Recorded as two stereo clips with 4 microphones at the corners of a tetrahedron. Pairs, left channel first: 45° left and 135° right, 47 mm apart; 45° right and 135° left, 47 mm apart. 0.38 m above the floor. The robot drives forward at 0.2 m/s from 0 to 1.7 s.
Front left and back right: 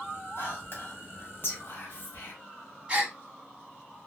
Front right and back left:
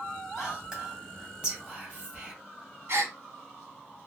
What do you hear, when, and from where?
0.4 s whispering: 60° left, 1.5 m; by 2.3 s 75° left, 1.4 m
2.9 s a gasp: 160° left, 0.7 m